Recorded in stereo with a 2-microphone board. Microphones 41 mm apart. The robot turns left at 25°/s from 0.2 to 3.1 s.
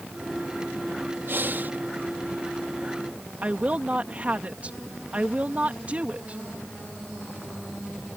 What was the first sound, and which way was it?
Breathing, 60° right (ahead or behind).